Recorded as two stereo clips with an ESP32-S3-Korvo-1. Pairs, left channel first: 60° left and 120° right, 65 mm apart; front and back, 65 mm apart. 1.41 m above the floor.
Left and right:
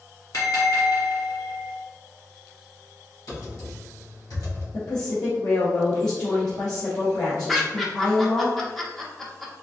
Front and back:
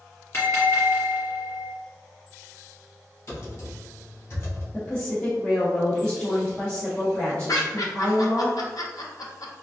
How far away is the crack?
I don't hear a crack.